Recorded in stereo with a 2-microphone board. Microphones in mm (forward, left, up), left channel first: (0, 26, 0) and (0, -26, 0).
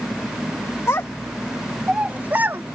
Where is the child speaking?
60° left (ahead or behind); by 2.6 s 45° right (ahead or behind).